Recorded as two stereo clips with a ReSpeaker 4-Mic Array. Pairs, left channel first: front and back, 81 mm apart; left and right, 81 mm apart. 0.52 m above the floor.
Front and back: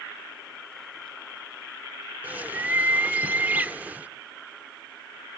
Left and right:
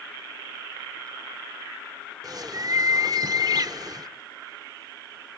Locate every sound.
2.2 s a bird: 115° right, 0.6 m